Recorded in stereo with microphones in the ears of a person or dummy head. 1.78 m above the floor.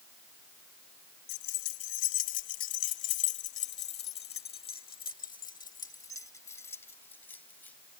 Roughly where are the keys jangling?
Left.